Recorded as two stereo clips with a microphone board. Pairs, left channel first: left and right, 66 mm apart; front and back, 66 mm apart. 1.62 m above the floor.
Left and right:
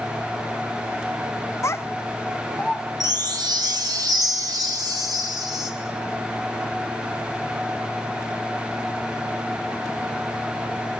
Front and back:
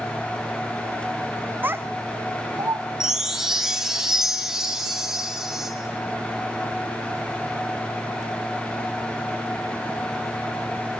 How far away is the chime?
About 2 m.